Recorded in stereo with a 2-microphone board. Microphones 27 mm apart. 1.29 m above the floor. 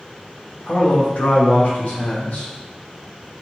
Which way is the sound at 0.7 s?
50° left (ahead or behind).